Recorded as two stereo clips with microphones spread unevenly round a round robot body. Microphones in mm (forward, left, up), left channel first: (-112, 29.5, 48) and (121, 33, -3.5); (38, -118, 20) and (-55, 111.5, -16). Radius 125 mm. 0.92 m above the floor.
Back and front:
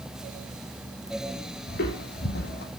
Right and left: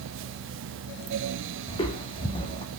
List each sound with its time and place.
1.7 s footsteps: 135° right, 3 m